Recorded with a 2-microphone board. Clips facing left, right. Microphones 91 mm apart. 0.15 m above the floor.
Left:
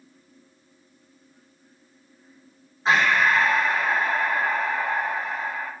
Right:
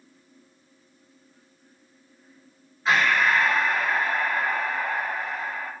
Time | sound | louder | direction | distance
2.9 | breathing | left 1 dB | 30° left (ahead or behind) | 5 m